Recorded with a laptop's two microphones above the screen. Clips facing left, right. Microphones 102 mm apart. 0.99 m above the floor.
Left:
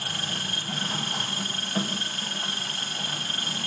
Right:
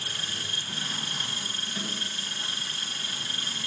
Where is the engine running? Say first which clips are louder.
Left 5 dB; 60° left (ahead or behind), 1.3 m.